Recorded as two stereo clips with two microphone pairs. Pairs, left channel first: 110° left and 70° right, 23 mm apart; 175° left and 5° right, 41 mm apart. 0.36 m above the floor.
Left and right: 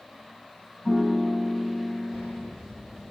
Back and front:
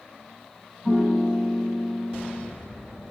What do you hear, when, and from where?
0.8 s a piano: 55° left, 7 m